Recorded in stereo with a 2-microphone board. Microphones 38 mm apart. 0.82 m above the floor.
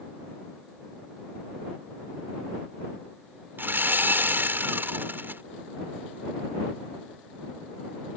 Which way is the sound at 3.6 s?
70° right (ahead or behind).